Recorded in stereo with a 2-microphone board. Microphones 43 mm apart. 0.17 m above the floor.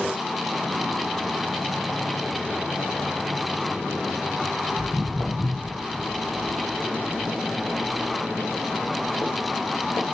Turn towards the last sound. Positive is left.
turn(degrees=80)